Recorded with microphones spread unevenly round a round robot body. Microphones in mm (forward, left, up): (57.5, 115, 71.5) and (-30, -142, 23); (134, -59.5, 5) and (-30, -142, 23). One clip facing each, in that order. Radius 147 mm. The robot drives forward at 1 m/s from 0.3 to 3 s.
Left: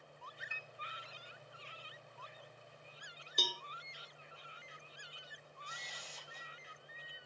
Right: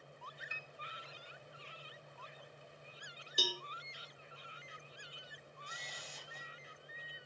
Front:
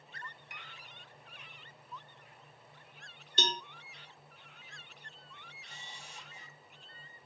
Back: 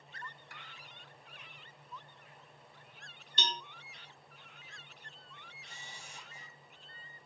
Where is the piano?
45° right, 1.0 m; by 0.7 s 50° right, 0.9 m.